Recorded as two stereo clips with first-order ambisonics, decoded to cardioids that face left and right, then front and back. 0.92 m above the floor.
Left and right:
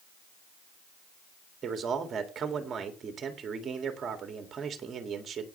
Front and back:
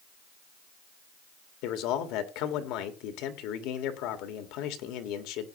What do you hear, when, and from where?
1.6 s a man speaking: 25° right, 1.7 m